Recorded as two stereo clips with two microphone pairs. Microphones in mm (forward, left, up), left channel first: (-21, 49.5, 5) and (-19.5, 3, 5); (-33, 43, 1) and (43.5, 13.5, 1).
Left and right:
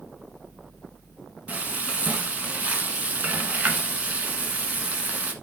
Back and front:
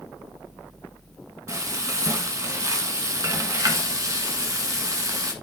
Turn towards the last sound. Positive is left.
turn(degrees=-40)